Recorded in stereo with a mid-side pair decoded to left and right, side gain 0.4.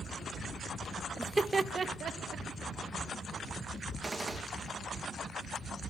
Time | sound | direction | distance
1.2 | laughter | 10° right | 0.9 m
4.0 | a gunshot | 25° right | 1.7 m